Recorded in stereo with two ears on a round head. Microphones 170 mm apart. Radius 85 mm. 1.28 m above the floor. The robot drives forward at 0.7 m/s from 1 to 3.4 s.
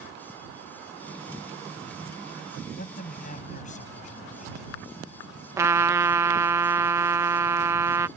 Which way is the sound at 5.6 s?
15° right (ahead or behind).